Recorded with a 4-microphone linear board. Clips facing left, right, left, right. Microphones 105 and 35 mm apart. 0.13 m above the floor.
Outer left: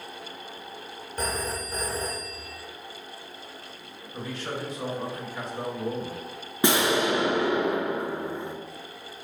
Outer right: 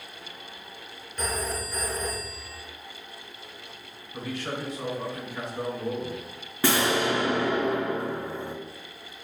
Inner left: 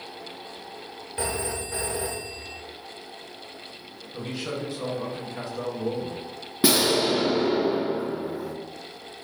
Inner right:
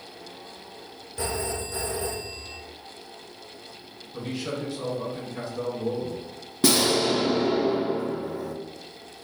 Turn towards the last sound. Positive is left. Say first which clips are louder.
# outer left 1 dB, even
turn(degrees=20)  # may be behind; listen again after turning